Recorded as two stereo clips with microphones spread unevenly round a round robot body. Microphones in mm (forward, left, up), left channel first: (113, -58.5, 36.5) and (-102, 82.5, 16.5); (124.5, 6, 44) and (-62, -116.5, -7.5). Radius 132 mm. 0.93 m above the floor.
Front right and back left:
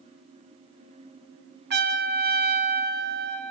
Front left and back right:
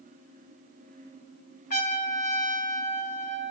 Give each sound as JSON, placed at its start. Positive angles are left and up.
{"t": 1.7, "sound": "a trumpet", "azimuth_deg": 95, "distance_m": 1.7}